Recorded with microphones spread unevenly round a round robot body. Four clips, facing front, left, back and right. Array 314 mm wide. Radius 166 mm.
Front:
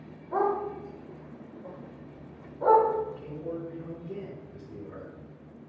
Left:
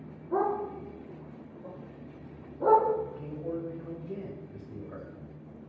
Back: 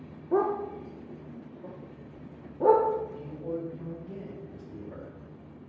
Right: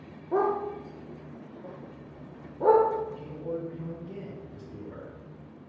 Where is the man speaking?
125° left, 3 m.